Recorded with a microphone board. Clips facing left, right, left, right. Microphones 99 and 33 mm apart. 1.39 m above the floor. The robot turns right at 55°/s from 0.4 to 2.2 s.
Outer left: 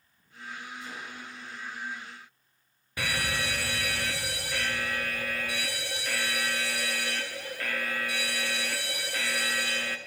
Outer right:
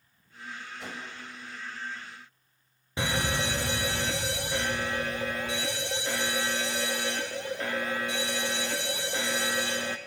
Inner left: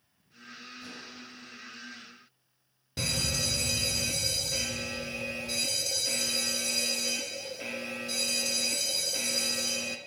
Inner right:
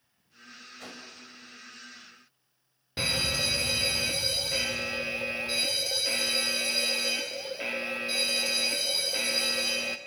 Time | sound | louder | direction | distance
0.8 | a whoosh | outer right 1 dB, inner right 2 dB | 85° right | 5.5 m
3.0 | a fire alarm | outer right 3 dB, inner right 3 dB | 25° right (ahead or behind) | 1.3 m